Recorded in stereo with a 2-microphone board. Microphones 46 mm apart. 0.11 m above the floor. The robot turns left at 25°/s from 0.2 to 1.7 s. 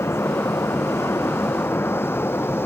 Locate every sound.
0.0 s an aircraft: 75° left (ahead or behind); by 2.6 s 55° left (ahead or behind)